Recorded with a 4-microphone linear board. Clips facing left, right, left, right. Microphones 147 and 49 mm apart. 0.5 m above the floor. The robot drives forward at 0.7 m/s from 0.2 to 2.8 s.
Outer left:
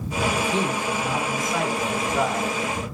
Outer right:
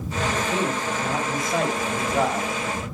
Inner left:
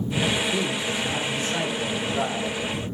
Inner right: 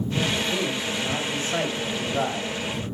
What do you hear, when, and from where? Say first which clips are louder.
0.3 s a man speaking: outer left 1 dB, inner left 1 dB; 45° right (ahead or behind), 2 m; by 2.9 s 25° right (ahead or behind), 3.5 m